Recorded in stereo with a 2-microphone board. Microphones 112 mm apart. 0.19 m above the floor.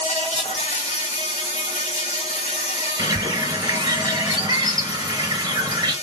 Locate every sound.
0.0 s an insect: 75° left (ahead or behind), 0.9 m
3.0 s a bird: 35° right (ahead or behind), 0.8 m